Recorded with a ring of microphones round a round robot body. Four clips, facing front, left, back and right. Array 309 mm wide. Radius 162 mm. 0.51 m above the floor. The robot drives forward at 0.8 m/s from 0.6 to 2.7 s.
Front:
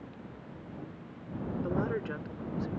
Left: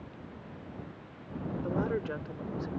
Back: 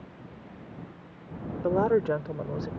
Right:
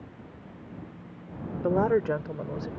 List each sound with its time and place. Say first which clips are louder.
1.6 s a woman speaking: right 10 dB, back 11 dB; 135° right; by 2.7 s 150° right